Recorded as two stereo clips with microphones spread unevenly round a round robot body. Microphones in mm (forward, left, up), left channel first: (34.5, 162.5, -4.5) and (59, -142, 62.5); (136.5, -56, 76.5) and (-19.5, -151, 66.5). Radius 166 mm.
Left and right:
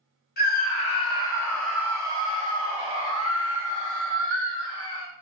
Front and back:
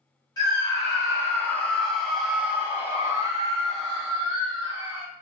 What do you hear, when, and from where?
0.4 s a scream: 95° left, 1.4 m; by 5.1 s 90° right, 1.9 m